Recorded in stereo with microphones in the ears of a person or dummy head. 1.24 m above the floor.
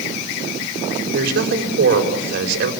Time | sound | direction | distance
1.1 | a man speaking | 65° right (ahead or behind) | 5.5 m